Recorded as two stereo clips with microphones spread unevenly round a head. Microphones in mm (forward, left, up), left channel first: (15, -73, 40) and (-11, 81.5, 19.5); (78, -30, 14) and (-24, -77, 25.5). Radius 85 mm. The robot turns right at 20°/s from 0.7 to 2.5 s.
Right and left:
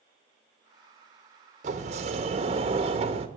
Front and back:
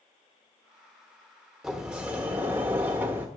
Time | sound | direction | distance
1.6 | a sliding door | 130° left | 0.9 m